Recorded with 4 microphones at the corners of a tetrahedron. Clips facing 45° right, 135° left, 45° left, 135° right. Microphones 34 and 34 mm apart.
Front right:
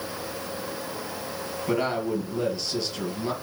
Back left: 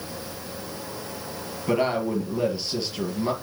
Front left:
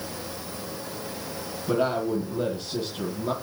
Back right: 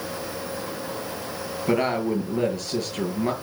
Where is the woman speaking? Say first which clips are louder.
Back left 3 dB, back right 2 dB; 145° right, 5.5 m.